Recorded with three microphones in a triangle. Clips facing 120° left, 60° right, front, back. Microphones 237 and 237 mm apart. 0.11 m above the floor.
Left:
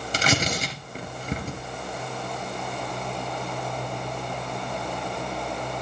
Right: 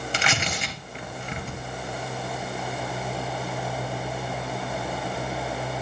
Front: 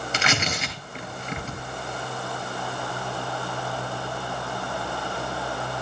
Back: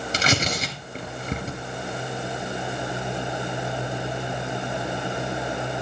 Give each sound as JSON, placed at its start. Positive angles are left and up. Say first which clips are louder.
{"t": 0.1, "sound": "tearing paper", "louder": "left 7 dB, back 3 dB", "azimuth_deg": 145, "distance_m": 2.0}